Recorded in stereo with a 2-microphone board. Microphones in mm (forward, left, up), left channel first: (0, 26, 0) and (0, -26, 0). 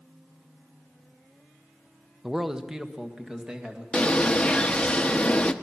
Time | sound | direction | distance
2.2 | a man speaking | 5° right (ahead or behind) | 0.8 m
3.9 | a bird | 20° left (ahead or behind) | 0.8 m